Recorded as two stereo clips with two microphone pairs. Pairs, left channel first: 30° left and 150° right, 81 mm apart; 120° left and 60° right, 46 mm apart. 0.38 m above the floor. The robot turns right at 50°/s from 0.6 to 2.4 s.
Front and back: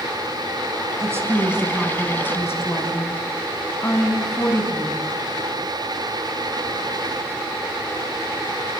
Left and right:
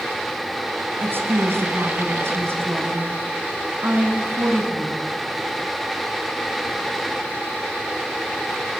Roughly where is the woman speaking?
Right.